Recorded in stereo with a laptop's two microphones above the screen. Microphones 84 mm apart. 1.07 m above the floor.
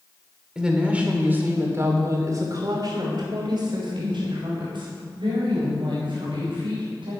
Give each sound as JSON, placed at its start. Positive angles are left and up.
{"t": 0.6, "sound": "a woman speaking", "side_deg": -10, "distance_m": 3.5}